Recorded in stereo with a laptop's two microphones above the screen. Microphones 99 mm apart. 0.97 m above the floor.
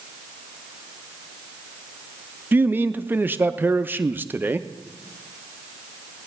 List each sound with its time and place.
2.5 s a man speaking: 20° right (ahead or behind), 0.5 m